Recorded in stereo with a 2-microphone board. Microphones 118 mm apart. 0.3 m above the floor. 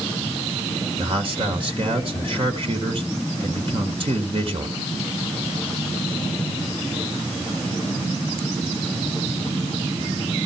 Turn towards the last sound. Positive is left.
turn(degrees=-50)  # may be behind; listen again after turning